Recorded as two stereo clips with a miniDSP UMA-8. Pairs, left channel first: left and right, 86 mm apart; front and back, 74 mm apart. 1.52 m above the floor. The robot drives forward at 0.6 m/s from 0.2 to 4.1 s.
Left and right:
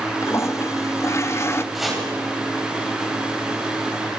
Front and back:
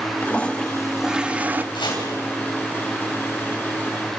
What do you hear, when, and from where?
0.2 s a toilet flushing: 60° left, 1.0 m; by 1.6 s 130° left, 1.1 m
1.7 s chopping: 5° right, 9 m